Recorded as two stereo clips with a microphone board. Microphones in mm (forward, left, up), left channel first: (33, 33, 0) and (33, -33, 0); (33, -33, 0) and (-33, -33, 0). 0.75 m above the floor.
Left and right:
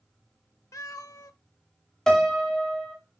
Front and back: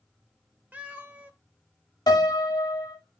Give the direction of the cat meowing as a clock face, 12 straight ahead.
8 o'clock.